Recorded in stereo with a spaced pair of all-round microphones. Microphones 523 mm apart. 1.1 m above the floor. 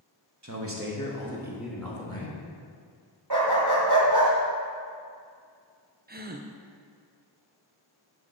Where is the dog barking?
50° right (ahead or behind), 2.0 m.